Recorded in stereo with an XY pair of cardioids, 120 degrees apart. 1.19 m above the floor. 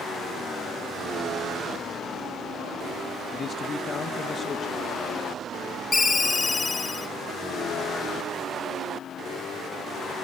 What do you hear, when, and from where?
3.3 s a man speaking: 35° left, 0.9 m
5.9 s a ringtone: 25° left, 1.3 m